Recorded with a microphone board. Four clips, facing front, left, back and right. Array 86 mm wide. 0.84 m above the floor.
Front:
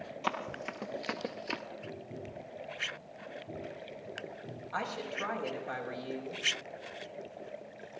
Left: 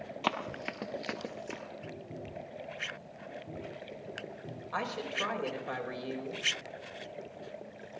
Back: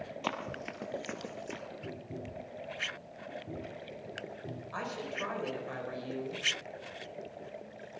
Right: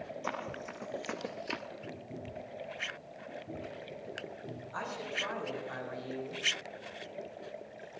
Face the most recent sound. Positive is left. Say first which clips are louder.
# left 4 dB, front 2 dB
turn(degrees=95)